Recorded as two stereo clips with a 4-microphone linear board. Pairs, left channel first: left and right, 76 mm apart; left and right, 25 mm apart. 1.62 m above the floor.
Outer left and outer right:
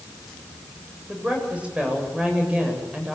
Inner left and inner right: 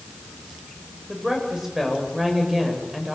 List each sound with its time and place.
1.1 s a woman speaking: 15° right (ahead or behind), 8.5 m